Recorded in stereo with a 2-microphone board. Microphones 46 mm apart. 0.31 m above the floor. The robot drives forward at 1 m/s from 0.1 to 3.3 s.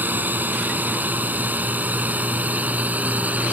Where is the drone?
40° right (ahead or behind); by 3.5 s 35° right (ahead or behind).